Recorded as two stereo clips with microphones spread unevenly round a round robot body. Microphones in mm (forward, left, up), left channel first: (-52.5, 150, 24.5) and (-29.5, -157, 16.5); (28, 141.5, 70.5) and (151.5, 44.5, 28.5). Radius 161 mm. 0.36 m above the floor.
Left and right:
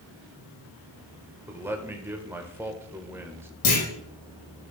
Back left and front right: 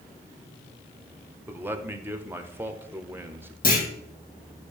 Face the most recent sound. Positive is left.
turn(degrees=120)